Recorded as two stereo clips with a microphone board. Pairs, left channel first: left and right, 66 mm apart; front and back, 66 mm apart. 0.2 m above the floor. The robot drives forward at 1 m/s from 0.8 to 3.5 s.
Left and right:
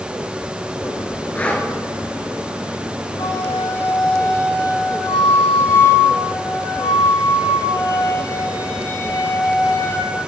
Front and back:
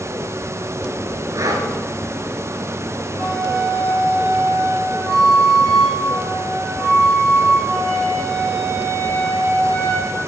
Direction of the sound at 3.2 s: 90° left.